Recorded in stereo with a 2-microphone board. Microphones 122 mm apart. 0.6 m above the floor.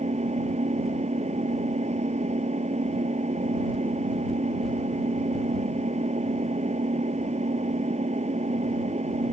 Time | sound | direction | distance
0.0 | an engine running | 65° right (ahead or behind) | ?